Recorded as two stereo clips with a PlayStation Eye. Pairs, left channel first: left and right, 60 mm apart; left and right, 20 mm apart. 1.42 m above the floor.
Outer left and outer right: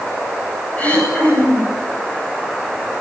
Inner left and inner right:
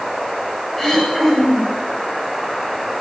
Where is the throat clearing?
20° left (ahead or behind), 10 m.